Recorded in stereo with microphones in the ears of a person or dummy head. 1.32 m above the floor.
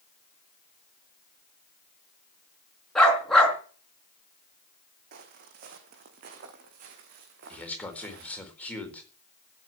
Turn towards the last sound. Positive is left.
turn(degrees=10)  # may be behind; listen again after turning